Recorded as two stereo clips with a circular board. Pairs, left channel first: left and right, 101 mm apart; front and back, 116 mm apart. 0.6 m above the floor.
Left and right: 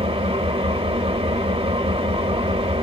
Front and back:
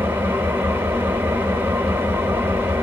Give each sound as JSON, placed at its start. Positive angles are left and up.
{"t": 0.0, "sound": "an engine running", "azimuth_deg": -110, "distance_m": 0.9}